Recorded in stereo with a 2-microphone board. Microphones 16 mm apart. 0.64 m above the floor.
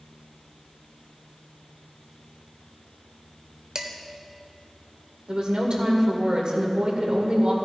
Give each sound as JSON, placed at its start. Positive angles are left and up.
{"t": 3.8, "sound": "dishes clattering", "side_deg": -55, "distance_m": 1.2}
{"t": 5.3, "sound": "a woman speaking", "side_deg": -70, "distance_m": 2.0}